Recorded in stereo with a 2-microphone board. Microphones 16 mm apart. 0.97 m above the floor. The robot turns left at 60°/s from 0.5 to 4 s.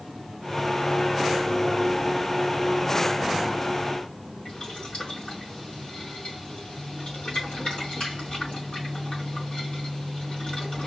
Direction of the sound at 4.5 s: 85° left.